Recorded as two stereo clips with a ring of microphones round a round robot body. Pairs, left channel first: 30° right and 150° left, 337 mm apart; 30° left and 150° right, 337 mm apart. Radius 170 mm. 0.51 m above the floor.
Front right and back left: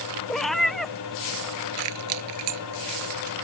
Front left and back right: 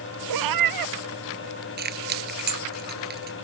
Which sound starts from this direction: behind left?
Keys jangling, at 1.8 s.